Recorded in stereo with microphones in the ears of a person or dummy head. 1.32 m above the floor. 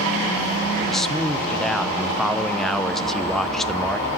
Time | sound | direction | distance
0.9 | a man speaking | 5° left (ahead or behind) | 0.7 m